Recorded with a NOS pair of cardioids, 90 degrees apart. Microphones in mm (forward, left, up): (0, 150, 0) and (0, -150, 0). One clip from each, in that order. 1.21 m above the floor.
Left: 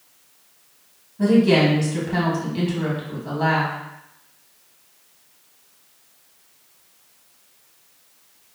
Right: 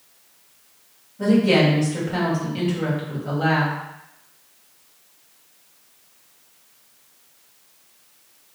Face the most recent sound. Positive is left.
turn(degrees=10)